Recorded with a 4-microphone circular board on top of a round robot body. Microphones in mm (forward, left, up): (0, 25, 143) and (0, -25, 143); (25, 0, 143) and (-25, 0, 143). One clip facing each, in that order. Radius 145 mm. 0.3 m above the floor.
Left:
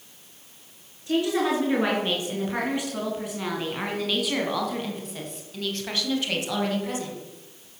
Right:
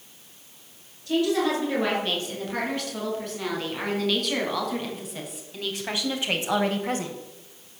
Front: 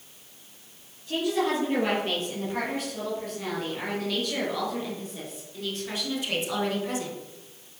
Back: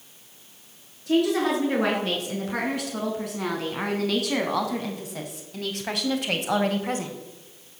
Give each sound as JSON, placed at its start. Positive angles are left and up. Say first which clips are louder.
{"t": 1.1, "sound": "a woman speaking", "louder": "even, back 4 dB", "azimuth_deg": 160, "distance_m": 6.0}